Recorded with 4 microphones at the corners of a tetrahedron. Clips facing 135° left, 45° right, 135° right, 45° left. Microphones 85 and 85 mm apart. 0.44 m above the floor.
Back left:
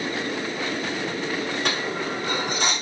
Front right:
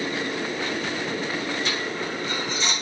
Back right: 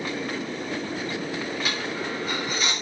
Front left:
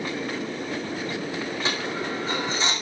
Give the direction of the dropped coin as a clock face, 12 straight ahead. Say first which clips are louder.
Back left 2 dB, front left 1 dB; 8 o'clock.